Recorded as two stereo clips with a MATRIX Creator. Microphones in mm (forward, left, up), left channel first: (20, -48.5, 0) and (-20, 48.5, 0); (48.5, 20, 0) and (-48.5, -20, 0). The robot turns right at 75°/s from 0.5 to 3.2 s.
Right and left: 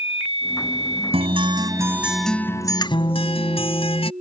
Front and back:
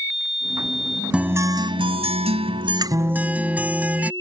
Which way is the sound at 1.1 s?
120° left.